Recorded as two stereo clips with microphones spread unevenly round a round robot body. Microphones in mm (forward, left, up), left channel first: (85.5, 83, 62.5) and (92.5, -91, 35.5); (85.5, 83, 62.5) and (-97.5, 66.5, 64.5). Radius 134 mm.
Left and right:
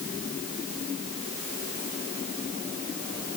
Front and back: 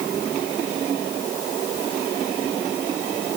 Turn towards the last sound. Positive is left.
No sound to turn to.